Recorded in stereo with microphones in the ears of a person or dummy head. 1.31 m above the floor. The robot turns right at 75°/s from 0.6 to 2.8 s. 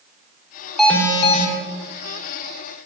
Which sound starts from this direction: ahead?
An alarm, at 0.8 s.